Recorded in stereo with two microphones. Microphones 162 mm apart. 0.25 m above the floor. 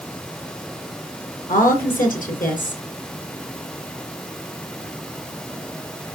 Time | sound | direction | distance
1.5 | a woman speaking | 65° left (ahead or behind) | 3.5 m